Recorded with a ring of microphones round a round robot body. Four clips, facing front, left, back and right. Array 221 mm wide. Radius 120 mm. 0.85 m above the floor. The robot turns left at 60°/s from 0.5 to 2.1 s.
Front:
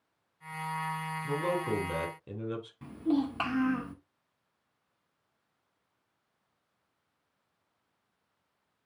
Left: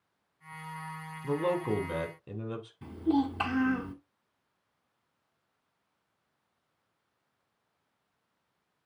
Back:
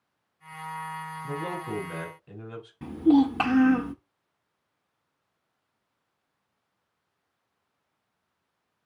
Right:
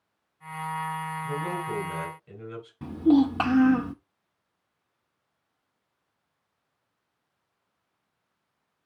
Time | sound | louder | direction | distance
1.2 | a man speaking | left 6 dB, front 3 dB | 90° left | 3 m
2.8 | a child speaking | right 8 dB, back 10 dB | 120° right | 0.8 m